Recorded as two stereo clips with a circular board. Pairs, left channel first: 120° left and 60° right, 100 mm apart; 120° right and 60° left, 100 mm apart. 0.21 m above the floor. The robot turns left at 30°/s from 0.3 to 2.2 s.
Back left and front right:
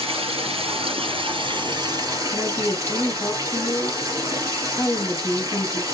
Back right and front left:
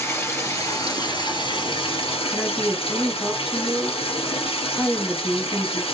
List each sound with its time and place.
0.0 s running water: 60° right, 2.5 m; by 5.9 s 115° right, 2.5 m
2.3 s a woman speaking: 145° left, 1.5 m